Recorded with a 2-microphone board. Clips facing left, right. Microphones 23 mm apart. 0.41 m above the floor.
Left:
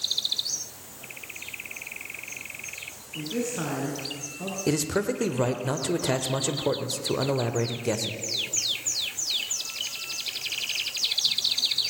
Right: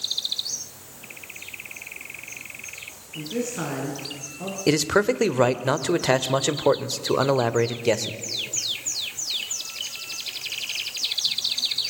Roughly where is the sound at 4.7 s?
Right.